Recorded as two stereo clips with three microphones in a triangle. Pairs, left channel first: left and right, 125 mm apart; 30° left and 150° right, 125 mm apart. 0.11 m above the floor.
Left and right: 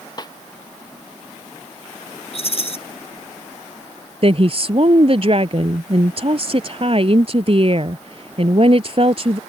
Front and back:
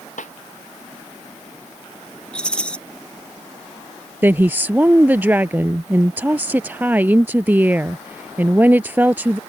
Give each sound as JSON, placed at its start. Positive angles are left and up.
{"t": 0.2, "sound": "a snare drum", "azimuth_deg": 35}
{"t": 2.3, "sound": "a rattle", "azimuth_deg": 110}
{"t": 4.2, "sound": "a woman speaking", "azimuth_deg": -80}